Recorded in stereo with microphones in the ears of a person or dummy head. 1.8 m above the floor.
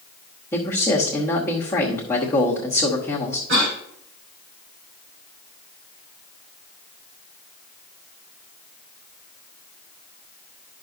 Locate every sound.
0.5 s a man speaking: 10° left (ahead or behind), 1.1 m
3.5 s a cough: 70° right (ahead or behind), 4 m